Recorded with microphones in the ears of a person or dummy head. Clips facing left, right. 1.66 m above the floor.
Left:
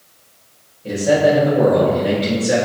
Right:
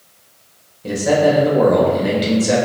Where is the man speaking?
65° right (ahead or behind), 1.5 m.